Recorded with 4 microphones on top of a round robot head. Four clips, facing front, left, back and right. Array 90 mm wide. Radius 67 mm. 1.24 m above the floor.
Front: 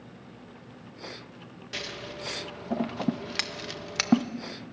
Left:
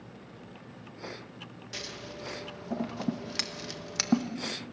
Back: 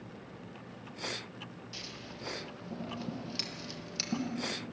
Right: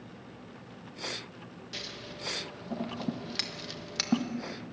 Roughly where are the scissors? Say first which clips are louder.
Left 3 dB, front 8 dB; ahead.